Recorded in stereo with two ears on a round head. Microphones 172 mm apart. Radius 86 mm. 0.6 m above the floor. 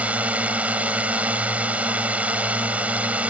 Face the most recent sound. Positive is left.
turn(degrees=-10)  # may be behind; listen again after turning